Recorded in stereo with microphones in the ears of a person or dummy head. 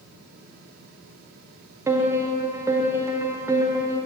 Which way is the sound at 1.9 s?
20° right (ahead or behind).